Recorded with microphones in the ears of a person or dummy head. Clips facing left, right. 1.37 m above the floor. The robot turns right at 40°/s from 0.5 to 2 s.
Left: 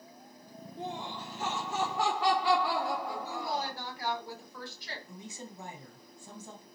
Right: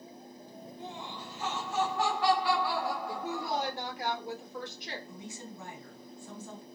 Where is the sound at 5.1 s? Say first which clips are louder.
Right 1 dB; 25° left (ahead or behind), 1.9 m.